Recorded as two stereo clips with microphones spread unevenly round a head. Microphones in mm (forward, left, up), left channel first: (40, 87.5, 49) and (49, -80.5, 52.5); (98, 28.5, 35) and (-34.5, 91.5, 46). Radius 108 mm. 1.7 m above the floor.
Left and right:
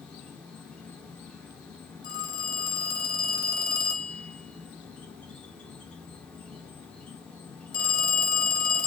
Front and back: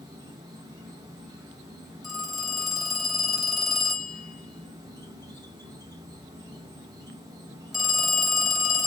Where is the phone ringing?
70° left, 1.1 m.